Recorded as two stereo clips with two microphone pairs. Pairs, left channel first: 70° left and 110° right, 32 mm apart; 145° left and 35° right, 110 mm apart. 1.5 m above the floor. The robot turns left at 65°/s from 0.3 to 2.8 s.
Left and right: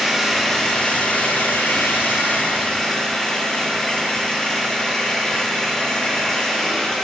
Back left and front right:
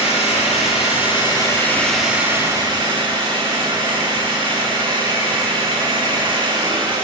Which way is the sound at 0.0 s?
165° left.